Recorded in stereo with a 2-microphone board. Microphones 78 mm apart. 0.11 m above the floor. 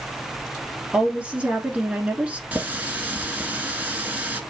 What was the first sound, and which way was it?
A woman speaking, 15° right (ahead or behind).